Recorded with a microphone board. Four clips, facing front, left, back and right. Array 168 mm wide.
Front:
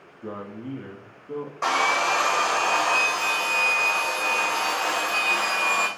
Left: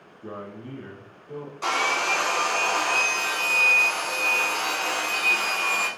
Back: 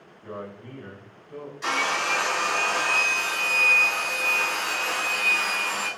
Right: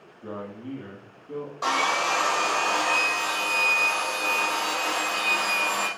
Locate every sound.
0.2 s a man speaking: 10° right, 5 m
1.6 s sawing: 20° right, 5 m